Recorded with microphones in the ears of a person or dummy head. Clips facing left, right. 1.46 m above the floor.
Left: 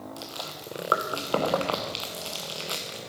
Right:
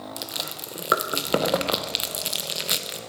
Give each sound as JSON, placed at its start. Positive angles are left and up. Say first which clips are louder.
{"t": 0.2, "sound": "chewing", "louder": "right 2 dB", "side_deg": -25, "distance_m": 0.6}